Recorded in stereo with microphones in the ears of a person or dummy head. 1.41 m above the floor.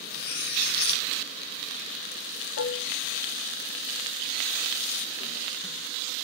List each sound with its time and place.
0.1 s cutlery clinking: 60° left (ahead or behind), 1.3 m
2.6 s dishes clattering: 65° left (ahead or behind), 1.2 m